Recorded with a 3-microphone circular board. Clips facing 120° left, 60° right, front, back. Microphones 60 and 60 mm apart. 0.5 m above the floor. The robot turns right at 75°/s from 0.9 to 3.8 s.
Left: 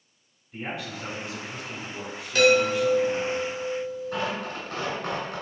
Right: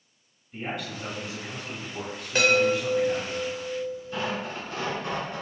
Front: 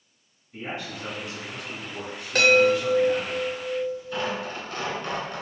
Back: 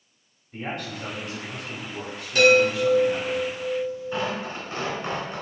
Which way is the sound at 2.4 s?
10° right.